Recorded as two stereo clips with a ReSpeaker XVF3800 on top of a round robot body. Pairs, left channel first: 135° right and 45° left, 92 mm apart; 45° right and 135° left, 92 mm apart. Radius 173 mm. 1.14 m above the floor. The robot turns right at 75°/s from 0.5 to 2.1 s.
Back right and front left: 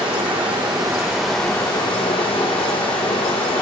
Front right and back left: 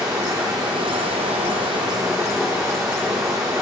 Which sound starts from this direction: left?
Running water, at 0.0 s.